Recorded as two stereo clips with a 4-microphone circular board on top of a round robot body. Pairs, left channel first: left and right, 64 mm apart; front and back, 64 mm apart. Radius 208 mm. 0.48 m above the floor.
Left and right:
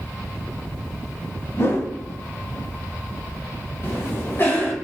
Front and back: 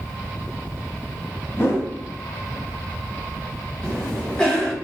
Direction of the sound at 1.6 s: 45° left.